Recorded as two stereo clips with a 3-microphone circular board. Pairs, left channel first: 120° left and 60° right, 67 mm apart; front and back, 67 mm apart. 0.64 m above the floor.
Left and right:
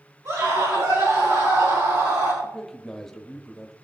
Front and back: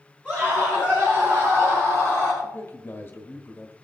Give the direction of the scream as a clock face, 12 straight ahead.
2 o'clock.